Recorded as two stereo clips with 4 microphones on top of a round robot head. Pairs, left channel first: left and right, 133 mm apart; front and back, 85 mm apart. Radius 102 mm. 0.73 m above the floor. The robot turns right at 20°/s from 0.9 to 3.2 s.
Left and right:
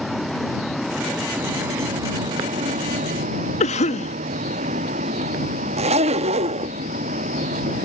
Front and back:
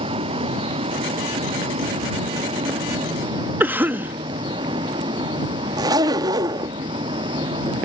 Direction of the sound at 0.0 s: Straight behind.